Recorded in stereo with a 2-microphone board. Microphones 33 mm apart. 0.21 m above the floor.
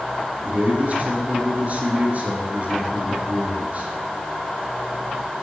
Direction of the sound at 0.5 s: 50° right (ahead or behind).